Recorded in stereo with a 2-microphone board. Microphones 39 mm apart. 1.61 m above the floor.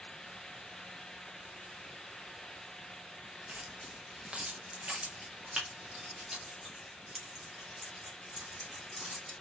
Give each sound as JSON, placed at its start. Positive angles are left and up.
{"t": 3.5, "sound": "keys jangling", "side_deg": -40, "distance_m": 1.2}